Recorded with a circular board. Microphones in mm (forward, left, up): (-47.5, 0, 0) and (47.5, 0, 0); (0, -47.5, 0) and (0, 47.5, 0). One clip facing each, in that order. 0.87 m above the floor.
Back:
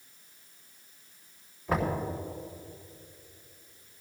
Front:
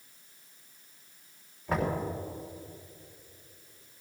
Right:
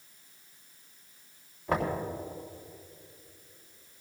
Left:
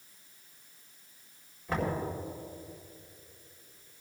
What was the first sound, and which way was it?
Knocking, 90° right.